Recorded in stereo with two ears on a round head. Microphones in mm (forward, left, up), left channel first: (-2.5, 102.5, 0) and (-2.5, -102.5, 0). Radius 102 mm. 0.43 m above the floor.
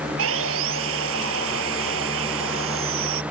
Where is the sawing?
65° right (ahead or behind).